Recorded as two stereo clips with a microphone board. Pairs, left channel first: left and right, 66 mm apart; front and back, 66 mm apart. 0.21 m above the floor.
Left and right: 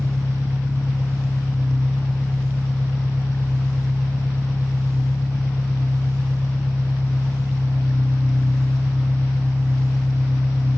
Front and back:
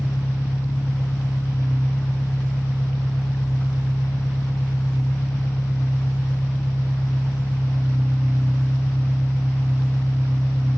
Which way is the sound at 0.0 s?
5° left.